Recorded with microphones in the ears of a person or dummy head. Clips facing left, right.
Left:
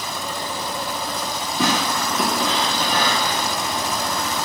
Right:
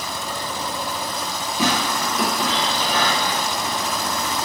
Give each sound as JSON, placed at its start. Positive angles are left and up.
{"t": 1.6, "sound": "tearing paper", "side_deg": -15, "distance_m": 1.1}